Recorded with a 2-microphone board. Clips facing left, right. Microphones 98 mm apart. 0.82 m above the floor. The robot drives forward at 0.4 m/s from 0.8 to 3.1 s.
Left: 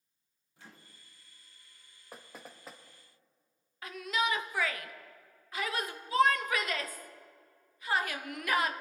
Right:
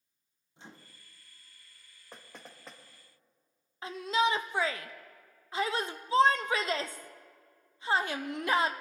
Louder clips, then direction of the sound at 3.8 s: Right 4 dB; 30° right (ahead or behind).